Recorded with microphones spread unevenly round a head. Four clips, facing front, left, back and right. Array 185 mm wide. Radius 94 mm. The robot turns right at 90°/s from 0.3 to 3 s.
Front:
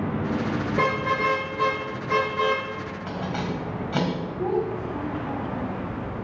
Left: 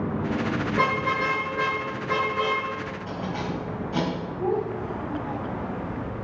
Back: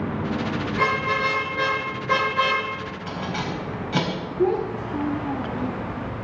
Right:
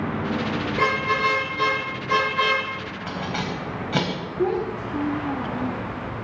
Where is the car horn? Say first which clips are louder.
Right 2 dB, back 1 dB; 60° left, 7.5 m; by 2.6 s 125° right, 7.5 m.